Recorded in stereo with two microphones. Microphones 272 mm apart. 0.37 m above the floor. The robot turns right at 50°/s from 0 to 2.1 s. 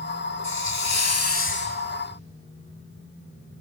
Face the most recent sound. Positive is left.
turn(degrees=165)